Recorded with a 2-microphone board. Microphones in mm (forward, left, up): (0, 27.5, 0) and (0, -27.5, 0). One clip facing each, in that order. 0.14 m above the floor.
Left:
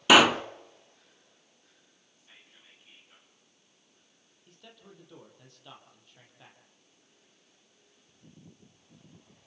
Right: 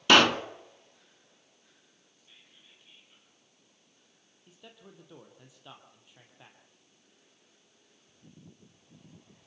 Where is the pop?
10° left (ahead or behind), 0.7 m.